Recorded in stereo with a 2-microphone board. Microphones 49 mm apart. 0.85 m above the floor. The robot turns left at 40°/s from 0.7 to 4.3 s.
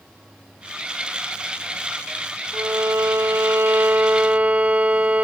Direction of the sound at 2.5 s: 75° right.